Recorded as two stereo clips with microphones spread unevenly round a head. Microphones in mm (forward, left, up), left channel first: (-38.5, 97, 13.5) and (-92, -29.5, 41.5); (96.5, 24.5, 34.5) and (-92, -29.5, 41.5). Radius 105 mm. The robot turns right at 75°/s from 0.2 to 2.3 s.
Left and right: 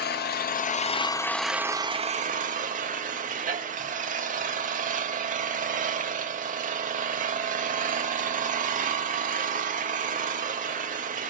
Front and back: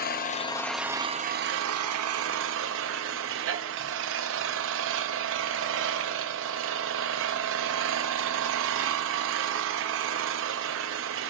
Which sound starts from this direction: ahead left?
An engine running, at 0.0 s.